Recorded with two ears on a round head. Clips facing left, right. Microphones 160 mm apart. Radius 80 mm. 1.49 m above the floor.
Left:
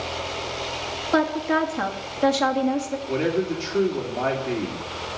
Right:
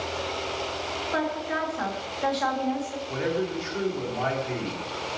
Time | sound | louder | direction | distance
1.1 | a woman speaking | left 8 dB | 60° left (ahead or behind) | 2 m
3.1 | a man speaking | left 4 dB | 45° left (ahead or behind) | 3 m